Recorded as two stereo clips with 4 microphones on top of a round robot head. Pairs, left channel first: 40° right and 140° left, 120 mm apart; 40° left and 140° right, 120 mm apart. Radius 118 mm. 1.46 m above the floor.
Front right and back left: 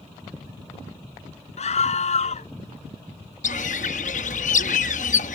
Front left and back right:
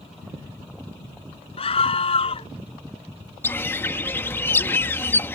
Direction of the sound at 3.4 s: 30° right.